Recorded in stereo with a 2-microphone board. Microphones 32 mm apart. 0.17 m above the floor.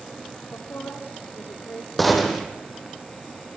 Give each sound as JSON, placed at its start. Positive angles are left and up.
{"t": 0.5, "sound": "a woman speaking", "side_deg": 80, "distance_m": 7.5}
{"t": 2.0, "sound": "a gunshot", "side_deg": 0, "distance_m": 4.5}